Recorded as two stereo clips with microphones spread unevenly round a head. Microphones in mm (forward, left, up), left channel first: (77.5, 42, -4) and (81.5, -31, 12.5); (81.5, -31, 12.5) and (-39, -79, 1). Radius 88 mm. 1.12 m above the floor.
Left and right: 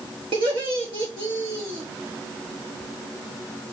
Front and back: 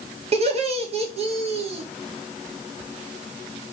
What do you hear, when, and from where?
0.3 s laughter: 125° right, 3 m